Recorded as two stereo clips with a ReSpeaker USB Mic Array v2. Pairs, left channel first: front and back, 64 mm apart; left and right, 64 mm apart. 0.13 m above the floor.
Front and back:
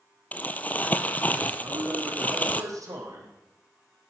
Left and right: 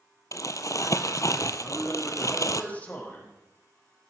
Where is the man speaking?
155° left, 4.5 m.